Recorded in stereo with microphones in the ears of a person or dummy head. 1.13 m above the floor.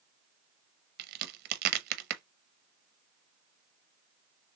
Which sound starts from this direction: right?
A crack, at 1.0 s.